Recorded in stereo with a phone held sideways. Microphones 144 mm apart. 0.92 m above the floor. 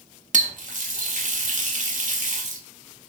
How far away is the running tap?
About 0.6 m.